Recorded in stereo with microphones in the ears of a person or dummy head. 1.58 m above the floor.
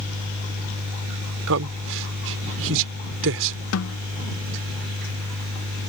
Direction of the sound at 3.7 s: 80° left.